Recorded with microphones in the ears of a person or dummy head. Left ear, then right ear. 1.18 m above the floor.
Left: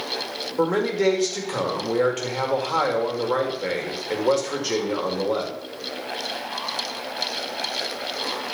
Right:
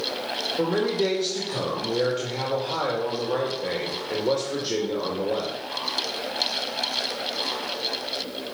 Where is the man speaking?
40° left (ahead or behind), 2.5 m.